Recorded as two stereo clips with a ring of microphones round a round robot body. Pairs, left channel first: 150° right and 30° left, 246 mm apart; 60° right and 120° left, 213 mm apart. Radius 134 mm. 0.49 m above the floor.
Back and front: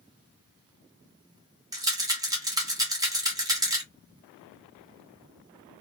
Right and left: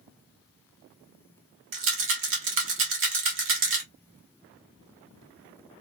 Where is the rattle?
105° left, 1.1 m.